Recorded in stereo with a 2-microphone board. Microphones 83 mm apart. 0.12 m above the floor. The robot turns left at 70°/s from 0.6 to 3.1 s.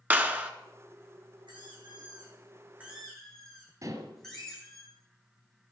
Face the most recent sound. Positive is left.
turn(degrees=-45)  # may be behind; listen again after turning